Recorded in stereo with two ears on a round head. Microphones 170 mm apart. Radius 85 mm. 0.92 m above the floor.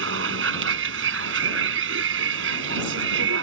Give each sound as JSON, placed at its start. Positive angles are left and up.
{"t": 0.0, "sound": "a vehicle", "side_deg": -75}